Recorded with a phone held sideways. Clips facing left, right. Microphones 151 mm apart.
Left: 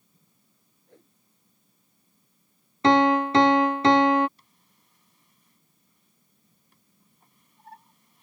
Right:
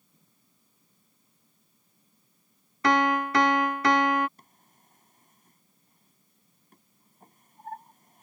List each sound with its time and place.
0.9 s a whoosh: 80° left
2.8 s a piano: 25° left (ahead or behind)
4.4 s a drawer: 50° right (ahead or behind)